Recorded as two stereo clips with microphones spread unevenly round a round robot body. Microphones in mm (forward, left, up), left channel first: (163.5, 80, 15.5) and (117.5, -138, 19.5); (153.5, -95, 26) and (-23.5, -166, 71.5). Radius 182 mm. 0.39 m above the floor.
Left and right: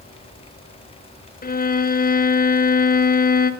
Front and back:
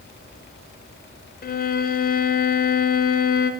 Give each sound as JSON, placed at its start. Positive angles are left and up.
{"t": 1.4, "sound": "a violin", "azimuth_deg": 30, "distance_m": 0.7}